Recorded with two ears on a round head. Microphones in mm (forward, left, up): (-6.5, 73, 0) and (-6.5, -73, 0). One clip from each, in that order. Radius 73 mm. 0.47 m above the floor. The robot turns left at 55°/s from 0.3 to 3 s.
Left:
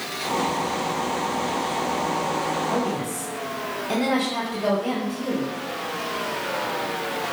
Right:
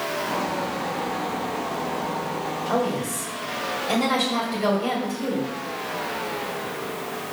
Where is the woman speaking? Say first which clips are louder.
Right 1 dB; 50° right (ahead or behind), 2.5 m; by 5.5 s 40° right (ahead or behind), 2.5 m.